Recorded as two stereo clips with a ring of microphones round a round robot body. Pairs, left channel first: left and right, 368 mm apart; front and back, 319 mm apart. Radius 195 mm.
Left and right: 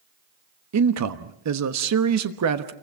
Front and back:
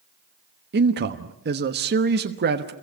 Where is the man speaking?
125° right, 1.2 m.